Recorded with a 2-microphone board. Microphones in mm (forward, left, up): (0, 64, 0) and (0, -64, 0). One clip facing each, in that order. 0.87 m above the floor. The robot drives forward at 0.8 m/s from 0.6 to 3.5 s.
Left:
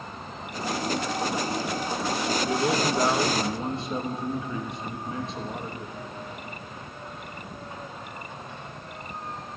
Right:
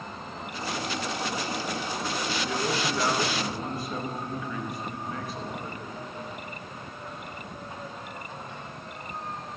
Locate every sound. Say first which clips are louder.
2.4 s a man speaking: left 5 dB; 30° left (ahead or behind), 1.0 m; by 6.0 s 25° left (ahead or behind), 1.2 m